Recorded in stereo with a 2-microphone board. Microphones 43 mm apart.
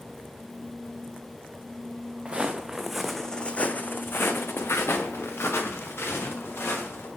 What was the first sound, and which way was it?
Footsteps, 25° right (ahead or behind).